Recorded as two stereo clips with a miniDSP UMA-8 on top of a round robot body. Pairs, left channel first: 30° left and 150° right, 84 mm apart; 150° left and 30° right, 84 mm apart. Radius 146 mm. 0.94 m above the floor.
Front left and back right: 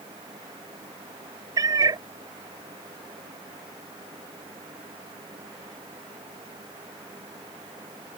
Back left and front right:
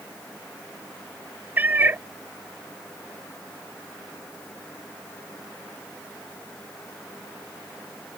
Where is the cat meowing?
100° right.